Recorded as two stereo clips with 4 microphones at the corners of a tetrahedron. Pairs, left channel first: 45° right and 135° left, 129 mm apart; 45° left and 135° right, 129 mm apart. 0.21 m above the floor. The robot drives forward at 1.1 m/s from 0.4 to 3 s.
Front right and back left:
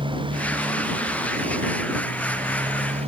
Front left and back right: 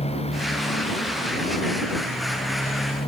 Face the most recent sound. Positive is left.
turn(degrees=95)